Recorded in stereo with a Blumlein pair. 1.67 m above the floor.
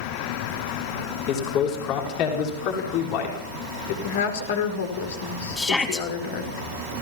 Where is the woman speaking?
60° left, 4.5 m.